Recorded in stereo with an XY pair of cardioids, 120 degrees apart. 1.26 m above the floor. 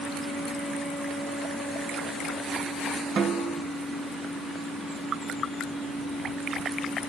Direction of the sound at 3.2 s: 45° right.